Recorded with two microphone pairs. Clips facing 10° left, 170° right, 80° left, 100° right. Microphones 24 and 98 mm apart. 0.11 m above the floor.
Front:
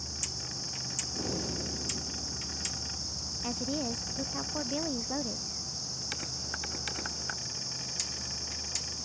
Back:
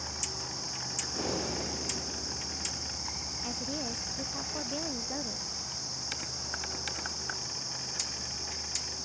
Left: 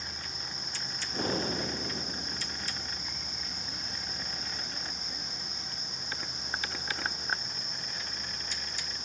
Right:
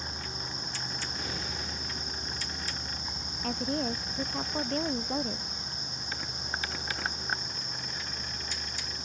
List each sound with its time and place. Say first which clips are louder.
0.0 s a vehicle: back 1 dB, right 4 dB; 160° right; by 9.0 s 165° right
1.1 s breathing: back 2 dB, left 12 dB; 130° left
3.4 s a woman speaking: front 4 dB, right 19 dB; 70° right